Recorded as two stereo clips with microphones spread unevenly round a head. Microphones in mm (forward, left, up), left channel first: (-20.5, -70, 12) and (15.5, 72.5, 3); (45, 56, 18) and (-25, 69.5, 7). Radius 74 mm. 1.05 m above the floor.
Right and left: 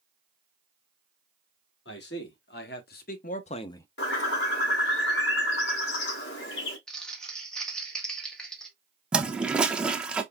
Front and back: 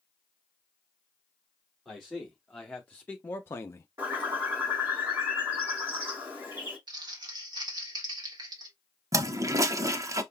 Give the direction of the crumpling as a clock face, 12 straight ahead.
6 o'clock.